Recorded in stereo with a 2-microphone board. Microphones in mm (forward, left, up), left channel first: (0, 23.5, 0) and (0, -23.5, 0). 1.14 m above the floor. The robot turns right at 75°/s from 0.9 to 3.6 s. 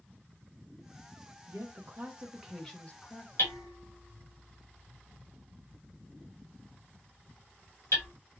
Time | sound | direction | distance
1.5 | a woman speaking | 80° right | 1.6 m
3.4 | hammering | 80° left | 2.5 m